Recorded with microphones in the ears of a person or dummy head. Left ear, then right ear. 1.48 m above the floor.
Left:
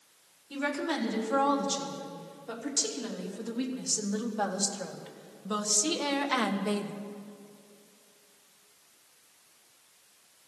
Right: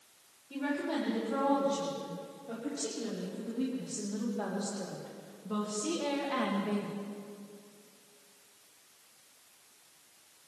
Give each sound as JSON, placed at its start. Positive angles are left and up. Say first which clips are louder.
{"t": 0.5, "sound": "a woman speaking", "louder": "left 3 dB", "side_deg": 65, "distance_m": 4.5}